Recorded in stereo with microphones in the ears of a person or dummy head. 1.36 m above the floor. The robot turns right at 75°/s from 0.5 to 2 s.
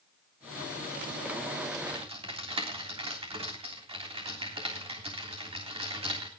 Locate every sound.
1.9 s typing on a keyboard: 25° right (ahead or behind), 3 m; by 6.3 s 35° right (ahead or behind), 3 m